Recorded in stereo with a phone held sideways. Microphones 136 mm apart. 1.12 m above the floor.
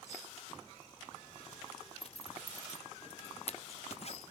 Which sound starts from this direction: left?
A zipper, at 2.0 s.